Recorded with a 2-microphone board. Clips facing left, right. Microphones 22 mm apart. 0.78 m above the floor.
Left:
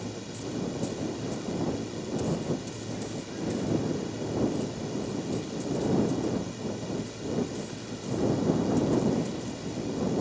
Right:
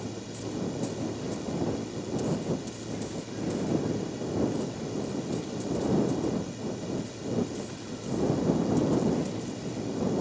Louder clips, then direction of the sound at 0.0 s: Even; 10° left (ahead or behind).